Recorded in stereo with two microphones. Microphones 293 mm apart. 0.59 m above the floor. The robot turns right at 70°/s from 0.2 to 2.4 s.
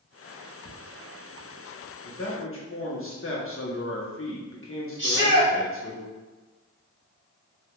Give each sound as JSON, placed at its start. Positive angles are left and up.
{"t": 0.7, "sound": "ticking", "side_deg": -50, "distance_m": 1.9}
{"t": 2.0, "sound": "a man speaking", "side_deg": 45, "distance_m": 0.8}
{"t": 5.0, "sound": "a shout", "side_deg": -40, "distance_m": 1.2}